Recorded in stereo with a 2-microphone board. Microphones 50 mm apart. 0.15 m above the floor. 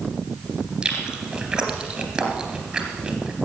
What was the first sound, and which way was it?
Chewing, 15° right (ahead or behind).